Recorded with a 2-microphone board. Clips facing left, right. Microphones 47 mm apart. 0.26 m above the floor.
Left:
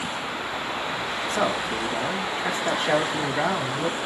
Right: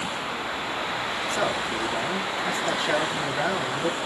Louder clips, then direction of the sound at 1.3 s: Left 2 dB; 30° left (ahead or behind).